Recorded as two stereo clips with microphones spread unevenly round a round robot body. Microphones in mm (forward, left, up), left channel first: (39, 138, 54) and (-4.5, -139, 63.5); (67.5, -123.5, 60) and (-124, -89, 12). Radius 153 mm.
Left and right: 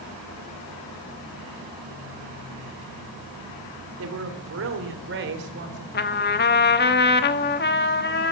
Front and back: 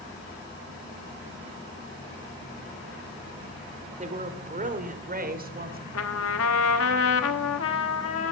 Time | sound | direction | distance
4.0 | a woman speaking | 140° right | 2.5 m
5.9 | a trumpet | 25° left | 1.0 m